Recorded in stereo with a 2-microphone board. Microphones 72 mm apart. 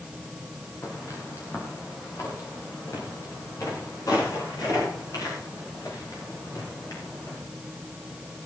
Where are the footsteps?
35° left (ahead or behind), 4.5 m; by 7.4 s 55° left (ahead or behind), 13.5 m.